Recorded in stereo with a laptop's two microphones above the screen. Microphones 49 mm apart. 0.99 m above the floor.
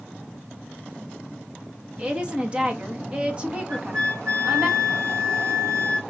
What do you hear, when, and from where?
2.0 s a woman speaking: 25° right (ahead or behind), 1.2 m
3.7 s a flute: 60° right (ahead or behind), 2.5 m